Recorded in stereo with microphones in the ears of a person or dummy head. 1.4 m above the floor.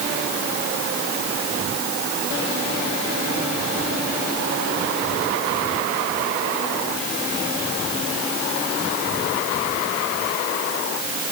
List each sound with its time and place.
Only background noise.